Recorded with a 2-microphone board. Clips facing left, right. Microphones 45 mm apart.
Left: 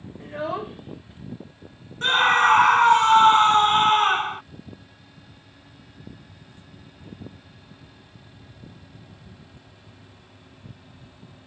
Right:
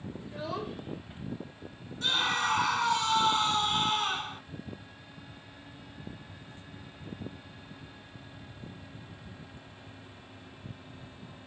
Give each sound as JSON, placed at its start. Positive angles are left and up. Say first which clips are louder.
{"t": 0.2, "sound": "a child speaking", "louder": "left 9 dB", "side_deg": 65}
{"t": 2.0, "sound": "a scream", "louder": "left 11 dB", "side_deg": 45}